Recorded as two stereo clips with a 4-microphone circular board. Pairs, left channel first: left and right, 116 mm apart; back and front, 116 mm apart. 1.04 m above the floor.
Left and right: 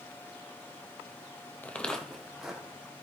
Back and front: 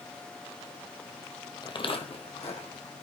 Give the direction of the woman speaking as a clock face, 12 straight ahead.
I don't hear a woman speaking.